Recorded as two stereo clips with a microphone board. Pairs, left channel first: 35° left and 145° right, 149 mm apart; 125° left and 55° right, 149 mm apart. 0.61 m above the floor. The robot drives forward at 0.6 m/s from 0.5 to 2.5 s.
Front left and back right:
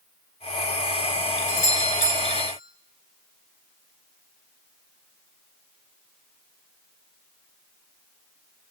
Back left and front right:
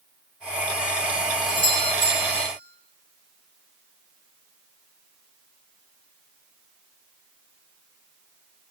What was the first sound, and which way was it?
A doorbell, 70° left.